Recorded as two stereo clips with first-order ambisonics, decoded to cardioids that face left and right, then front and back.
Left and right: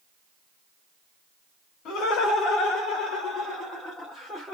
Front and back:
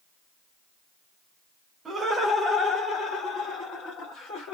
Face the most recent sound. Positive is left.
turn(degrees=10)